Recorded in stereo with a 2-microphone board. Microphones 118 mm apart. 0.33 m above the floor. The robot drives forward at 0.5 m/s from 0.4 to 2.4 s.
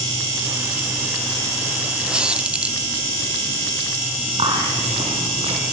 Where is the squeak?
5° right (ahead or behind), 0.9 m; by 2.8 s 10° right (ahead or behind), 0.7 m.